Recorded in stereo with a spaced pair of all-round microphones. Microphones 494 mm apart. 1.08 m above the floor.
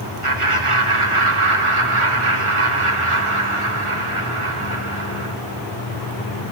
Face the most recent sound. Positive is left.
turn(degrees=-85)